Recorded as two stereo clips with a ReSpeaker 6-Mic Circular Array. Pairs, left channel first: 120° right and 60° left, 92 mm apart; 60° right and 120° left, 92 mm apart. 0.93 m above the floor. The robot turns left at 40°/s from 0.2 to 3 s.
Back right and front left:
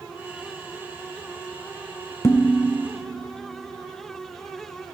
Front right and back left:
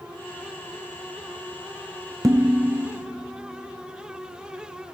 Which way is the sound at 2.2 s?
Straight behind.